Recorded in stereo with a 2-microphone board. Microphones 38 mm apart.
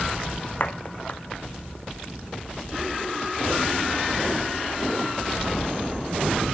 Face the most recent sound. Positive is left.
turn(degrees=40)  # may be behind; listen again after turning